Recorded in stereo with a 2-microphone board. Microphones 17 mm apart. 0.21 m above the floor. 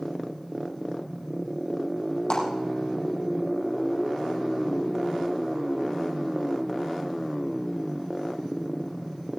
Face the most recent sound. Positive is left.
turn(degrees=60)  # may be behind; listen again after turning